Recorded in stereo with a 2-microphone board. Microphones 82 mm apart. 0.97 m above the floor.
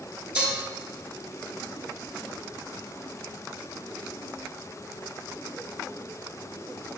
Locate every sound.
0.3 s dishes clattering: 15° right (ahead or behind), 3 m